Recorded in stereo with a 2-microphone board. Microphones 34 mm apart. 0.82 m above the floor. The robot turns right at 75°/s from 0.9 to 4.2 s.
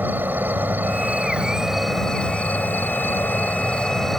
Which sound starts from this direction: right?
An insect, at 0.0 s.